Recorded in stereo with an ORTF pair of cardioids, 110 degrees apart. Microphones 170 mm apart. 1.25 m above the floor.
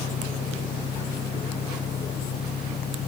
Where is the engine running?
50° left.